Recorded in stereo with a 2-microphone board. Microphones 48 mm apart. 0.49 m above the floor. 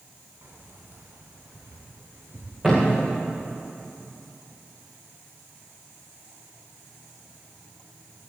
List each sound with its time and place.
0.4 s keys jangling: 60° right (ahead or behind), 3 m; by 3.5 s 80° right, 7 m
2.6 s a thud: 10° right (ahead or behind), 6 m